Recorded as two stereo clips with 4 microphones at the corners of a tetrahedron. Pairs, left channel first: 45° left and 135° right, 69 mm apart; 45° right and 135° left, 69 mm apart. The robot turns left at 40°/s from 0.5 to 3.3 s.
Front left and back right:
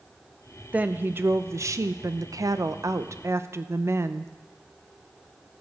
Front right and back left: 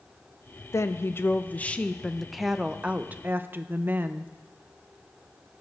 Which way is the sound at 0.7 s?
70° right.